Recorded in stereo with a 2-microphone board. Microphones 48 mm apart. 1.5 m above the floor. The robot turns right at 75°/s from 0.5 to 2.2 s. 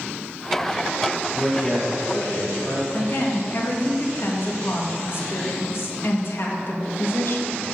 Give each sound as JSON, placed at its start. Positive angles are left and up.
{"t": 1.3, "sound": "a man speaking", "azimuth_deg": -5, "distance_m": 3.5}
{"t": 2.9, "sound": "a woman speaking", "side_deg": 55, "distance_m": 1.7}